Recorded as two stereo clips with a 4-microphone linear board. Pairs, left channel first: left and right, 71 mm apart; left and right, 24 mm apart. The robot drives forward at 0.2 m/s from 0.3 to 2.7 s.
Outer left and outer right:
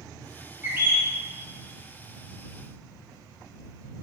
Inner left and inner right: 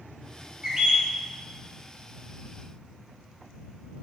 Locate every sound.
0.6 s a bird: 30° right (ahead or behind), 0.8 m